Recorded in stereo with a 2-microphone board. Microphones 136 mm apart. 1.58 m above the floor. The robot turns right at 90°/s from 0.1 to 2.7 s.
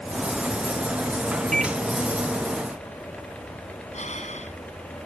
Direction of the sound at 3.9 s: 60° left (ahead or behind).